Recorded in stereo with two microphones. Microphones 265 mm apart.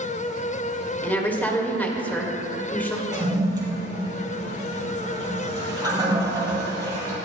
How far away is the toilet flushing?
About 2.5 m.